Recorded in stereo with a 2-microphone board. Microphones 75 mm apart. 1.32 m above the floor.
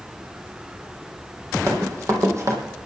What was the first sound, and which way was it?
Running footsteps, 40° right (ahead or behind).